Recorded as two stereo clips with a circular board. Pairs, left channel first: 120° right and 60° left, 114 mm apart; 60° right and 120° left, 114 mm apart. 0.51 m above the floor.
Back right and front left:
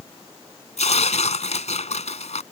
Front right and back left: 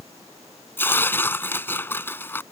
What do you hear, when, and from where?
0.8 s tearing paper: 130° right